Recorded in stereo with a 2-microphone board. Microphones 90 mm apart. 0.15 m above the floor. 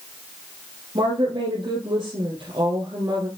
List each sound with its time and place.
0.9 s a woman speaking: 65° right (ahead or behind), 3.5 m